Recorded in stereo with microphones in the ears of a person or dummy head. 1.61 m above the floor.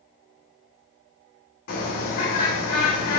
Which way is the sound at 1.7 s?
60° left (ahead or behind).